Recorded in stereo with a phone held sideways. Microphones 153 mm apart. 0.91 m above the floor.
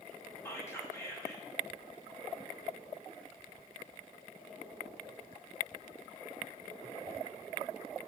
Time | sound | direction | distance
0.5 | whispering | 15° left (ahead or behind) | 1.6 m